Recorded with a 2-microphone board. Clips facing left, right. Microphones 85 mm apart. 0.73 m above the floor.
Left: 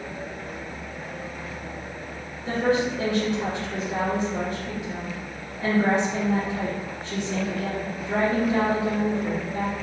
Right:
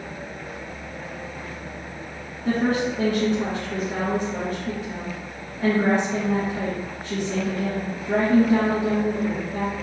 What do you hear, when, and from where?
2.5 s a woman speaking: 50° right (ahead or behind), 1.8 m